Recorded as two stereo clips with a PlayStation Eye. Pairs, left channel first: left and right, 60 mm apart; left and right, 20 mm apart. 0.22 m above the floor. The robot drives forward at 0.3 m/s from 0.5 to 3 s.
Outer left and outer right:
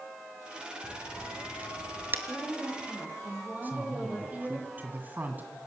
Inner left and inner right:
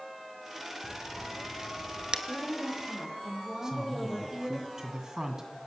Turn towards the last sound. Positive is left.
turn(degrees=-30)  # may be behind; listen again after turning